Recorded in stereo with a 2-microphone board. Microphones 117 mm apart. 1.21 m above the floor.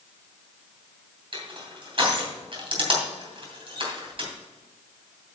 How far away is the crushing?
About 2.5 m.